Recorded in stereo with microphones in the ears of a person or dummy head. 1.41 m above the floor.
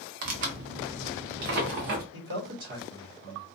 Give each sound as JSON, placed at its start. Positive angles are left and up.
{"t": 0.2, "sound": "tearing paper", "side_deg": -50, "distance_m": 0.5}
{"t": 2.1, "sound": "a man speaking", "side_deg": -60, "distance_m": 1.1}